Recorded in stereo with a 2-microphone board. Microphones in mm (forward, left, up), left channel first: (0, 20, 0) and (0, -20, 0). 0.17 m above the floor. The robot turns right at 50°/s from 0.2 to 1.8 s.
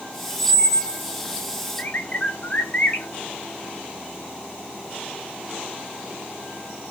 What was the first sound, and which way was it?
A squeak, 15° left.